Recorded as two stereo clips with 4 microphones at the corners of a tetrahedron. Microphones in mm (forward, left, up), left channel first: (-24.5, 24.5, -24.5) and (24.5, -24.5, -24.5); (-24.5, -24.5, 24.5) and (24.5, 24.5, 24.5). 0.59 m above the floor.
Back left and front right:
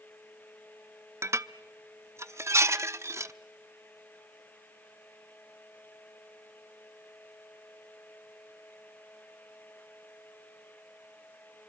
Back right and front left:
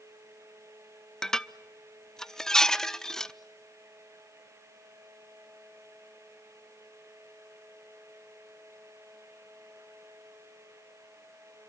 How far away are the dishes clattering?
About 0.5 m.